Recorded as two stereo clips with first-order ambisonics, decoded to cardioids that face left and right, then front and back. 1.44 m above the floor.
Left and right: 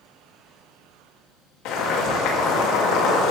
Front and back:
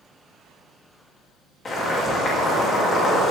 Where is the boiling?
65° left, 3 m.